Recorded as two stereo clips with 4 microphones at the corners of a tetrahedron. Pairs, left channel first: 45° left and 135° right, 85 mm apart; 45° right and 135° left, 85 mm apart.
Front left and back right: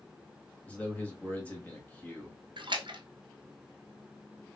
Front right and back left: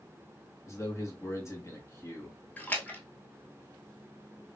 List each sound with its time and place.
0.7 s a man speaking: 20° right, 1.8 m
2.6 s a splash: 115° right, 0.9 m